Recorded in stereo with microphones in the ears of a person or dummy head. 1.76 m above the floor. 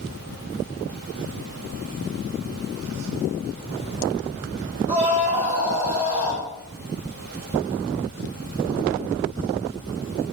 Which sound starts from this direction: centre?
A scream, at 4.9 s.